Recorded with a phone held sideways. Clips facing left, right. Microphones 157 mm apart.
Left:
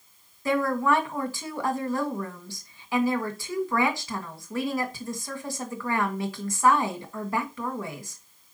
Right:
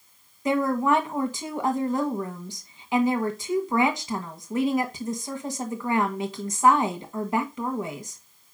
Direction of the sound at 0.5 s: 20° right (ahead or behind).